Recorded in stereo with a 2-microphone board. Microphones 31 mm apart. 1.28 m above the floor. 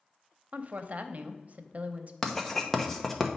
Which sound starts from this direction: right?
A woman speaking, at 0.5 s.